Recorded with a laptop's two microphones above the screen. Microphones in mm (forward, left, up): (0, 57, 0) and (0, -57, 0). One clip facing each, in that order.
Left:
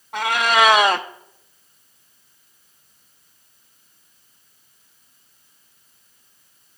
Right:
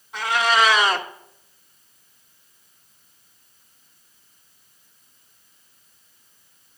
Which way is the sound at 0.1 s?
60° left (ahead or behind).